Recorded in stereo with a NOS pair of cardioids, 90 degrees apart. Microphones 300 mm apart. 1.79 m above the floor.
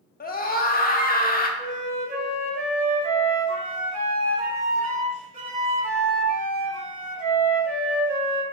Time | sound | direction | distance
0.2 | a scream | 30° left | 0.8 m
1.6 | a flute | 30° right | 1.6 m